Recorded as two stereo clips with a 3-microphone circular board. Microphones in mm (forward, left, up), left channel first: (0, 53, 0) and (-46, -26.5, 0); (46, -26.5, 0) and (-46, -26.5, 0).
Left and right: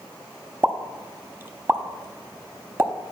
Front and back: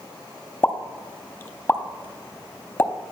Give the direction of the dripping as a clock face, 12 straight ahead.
I don't hear dripping.